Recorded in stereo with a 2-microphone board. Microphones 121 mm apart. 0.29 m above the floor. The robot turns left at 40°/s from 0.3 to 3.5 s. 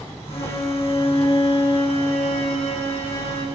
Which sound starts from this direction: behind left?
A violin, at 0.3 s.